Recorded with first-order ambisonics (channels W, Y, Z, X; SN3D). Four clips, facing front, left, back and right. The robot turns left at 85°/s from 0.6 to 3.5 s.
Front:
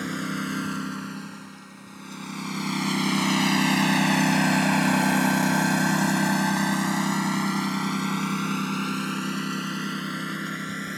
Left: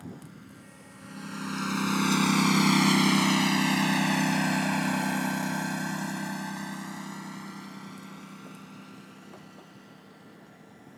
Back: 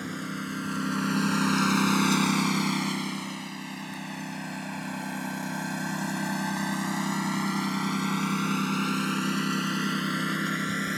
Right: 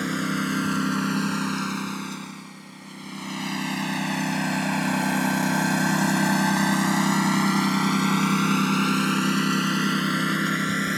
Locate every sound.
0.0 s a lawn mower: 70° right; by 11.0 s 100° right